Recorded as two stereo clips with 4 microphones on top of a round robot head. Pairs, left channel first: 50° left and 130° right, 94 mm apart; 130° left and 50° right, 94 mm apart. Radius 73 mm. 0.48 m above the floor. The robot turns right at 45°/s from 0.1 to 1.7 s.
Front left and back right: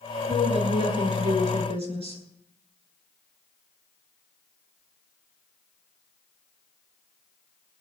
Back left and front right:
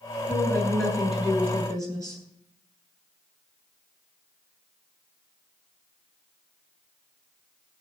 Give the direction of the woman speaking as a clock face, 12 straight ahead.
6 o'clock.